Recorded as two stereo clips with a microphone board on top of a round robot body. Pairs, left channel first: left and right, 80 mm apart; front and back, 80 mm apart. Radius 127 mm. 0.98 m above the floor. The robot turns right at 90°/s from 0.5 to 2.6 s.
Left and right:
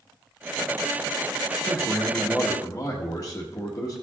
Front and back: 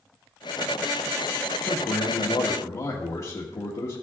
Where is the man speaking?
45° right, 1.4 m; by 4.0 s 40° left, 1.4 m.